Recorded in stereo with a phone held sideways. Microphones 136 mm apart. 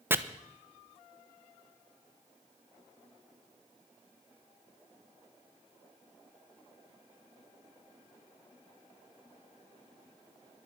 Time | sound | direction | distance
0.1 | chopping | 15° right (ahead or behind) | 0.9 m